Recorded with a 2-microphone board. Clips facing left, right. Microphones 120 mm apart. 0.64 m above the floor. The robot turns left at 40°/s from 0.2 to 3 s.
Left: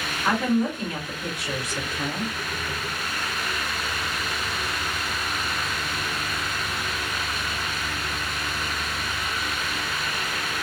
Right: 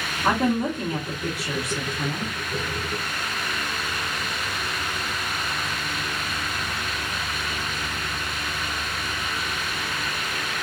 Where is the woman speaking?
120° right, 1.3 m; by 2.3 s 155° left, 1.3 m.